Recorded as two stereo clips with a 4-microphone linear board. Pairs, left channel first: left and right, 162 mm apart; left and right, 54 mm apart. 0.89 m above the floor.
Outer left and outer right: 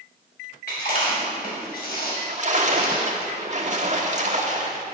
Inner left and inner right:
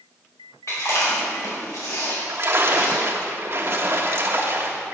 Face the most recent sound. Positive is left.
turn(degrees=-45)  # may be behind; listen again after turning